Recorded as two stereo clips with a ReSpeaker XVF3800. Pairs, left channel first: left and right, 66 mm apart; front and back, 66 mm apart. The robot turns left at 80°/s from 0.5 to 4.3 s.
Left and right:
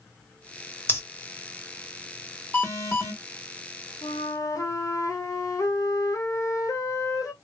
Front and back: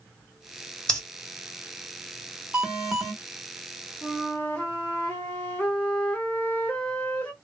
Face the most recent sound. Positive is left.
turn(degrees=65)